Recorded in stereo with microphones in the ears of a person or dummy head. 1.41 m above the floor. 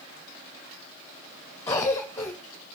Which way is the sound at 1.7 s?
15° left (ahead or behind).